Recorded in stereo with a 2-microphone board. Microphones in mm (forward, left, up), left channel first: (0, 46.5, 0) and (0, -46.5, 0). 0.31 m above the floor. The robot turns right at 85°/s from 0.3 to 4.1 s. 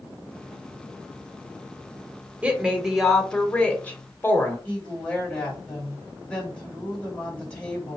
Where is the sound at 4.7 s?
10° left (ahead or behind), 2.0 m.